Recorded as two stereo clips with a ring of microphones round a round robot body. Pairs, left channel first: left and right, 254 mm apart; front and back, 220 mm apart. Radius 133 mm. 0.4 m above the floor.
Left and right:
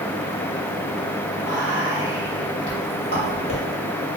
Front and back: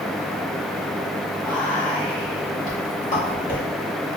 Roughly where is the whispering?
Ahead left.